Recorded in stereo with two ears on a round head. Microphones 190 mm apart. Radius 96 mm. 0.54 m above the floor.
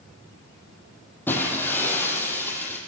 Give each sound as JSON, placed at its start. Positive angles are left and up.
{"t": 1.3, "sound": "breaking glass", "side_deg": 10, "distance_m": 8.0}